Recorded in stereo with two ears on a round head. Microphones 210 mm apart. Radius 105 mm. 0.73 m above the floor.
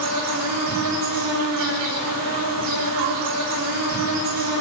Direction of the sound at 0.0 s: 80° right.